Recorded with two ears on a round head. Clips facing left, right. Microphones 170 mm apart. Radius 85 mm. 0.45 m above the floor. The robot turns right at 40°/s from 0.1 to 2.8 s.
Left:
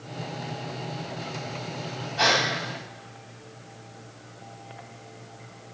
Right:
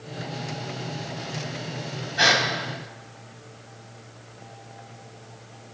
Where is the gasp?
20° right (ahead or behind), 3.5 m; by 2.4 s 10° right (ahead or behind), 3.5 m.